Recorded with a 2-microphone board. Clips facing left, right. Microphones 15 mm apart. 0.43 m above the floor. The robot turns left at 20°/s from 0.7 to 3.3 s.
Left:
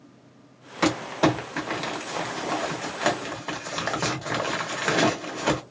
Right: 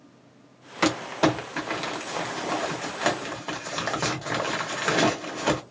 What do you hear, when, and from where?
0.8 s crumpling: 20° right (ahead or behind), 0.9 m; by 5.6 s 20° left (ahead or behind), 0.9 m